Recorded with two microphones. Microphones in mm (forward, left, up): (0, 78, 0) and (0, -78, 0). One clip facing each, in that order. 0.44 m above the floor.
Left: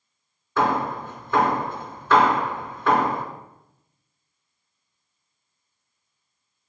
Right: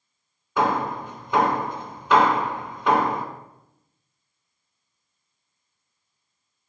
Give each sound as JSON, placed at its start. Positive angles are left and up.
{"t": 0.6, "sound": "hammering", "side_deg": -15, "distance_m": 2.5}